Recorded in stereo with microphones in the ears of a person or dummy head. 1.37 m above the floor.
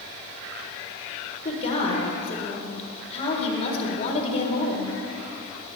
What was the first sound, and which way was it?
A woman speaking, 40° left (ahead or behind).